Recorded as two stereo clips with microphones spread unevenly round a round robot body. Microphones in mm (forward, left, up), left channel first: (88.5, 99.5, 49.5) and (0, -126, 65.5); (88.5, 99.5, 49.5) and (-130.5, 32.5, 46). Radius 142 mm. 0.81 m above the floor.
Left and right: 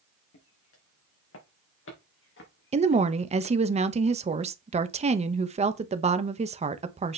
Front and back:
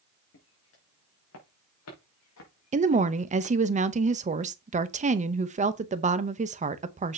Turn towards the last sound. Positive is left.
turn(degrees=-155)